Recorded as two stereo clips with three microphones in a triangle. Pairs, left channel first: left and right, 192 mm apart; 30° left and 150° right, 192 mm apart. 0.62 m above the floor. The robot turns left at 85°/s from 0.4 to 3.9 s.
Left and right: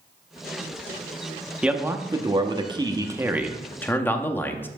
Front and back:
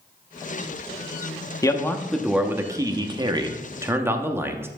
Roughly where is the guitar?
No guitar in this recording.